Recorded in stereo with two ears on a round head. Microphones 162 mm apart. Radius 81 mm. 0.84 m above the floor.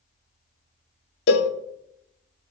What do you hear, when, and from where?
1.3 s a cowbell: 60° left (ahead or behind), 0.5 m